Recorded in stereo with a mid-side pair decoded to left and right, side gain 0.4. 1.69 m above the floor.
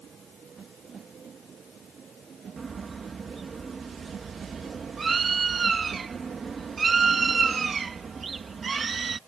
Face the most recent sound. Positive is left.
turn(degrees=-45)